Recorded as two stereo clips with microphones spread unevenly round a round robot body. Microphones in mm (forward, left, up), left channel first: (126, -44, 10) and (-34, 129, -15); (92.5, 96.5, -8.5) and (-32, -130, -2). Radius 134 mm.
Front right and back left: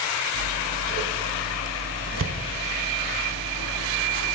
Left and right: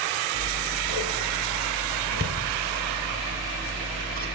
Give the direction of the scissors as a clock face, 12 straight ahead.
6 o'clock.